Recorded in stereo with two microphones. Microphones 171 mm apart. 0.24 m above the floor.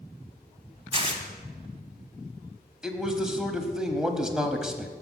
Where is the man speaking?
5° right (ahead or behind), 1.0 m.